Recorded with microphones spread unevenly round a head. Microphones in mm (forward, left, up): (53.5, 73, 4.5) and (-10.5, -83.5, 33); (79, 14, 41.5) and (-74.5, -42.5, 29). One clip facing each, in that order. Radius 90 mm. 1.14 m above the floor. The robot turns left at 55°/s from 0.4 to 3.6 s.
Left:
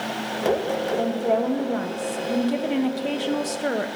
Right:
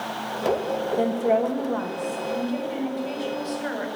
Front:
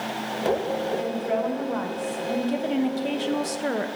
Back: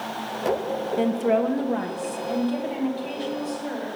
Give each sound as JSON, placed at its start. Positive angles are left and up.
{"t": 1.0, "sound": "a woman speaking", "azimuth_deg": 180, "distance_m": 1.0}